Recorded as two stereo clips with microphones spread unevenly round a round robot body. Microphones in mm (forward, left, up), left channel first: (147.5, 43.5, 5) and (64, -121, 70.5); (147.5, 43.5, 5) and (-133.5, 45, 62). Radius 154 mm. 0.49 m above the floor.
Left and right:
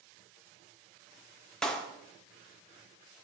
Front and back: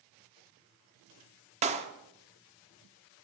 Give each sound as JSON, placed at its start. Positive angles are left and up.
{"t": 1.6, "sound": "a clap", "azimuth_deg": 110, "distance_m": 1.1}